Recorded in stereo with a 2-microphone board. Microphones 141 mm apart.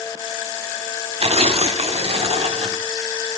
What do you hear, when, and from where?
1.2 s tearing paper: 45° right (ahead or behind), 0.9 m